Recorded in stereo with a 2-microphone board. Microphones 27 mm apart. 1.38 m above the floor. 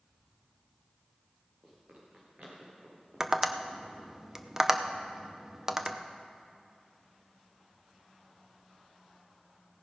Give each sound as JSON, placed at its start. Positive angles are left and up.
{"t": 1.6, "sound": "running footsteps", "side_deg": -55, "distance_m": 6.0}
{"t": 3.2, "sound": "tapping", "side_deg": -15, "distance_m": 0.6}